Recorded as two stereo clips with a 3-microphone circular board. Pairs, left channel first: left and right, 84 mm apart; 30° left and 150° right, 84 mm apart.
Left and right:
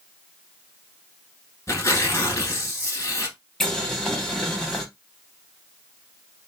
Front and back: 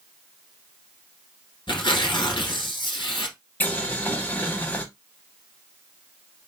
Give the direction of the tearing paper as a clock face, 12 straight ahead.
11 o'clock.